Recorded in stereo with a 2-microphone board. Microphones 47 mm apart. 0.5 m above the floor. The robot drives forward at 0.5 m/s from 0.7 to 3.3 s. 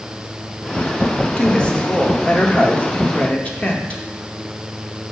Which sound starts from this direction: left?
A woman speaking, at 1.4 s.